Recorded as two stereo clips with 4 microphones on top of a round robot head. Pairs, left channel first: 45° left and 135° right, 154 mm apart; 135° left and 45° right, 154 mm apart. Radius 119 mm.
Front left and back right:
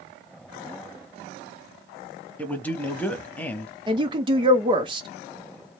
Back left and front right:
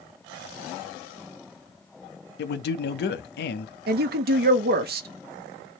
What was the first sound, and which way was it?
A man speaking, 125° left.